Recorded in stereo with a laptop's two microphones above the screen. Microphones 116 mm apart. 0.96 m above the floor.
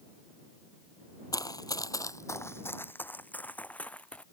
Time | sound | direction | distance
1.3 | running footsteps | 30° left (ahead or behind) | ?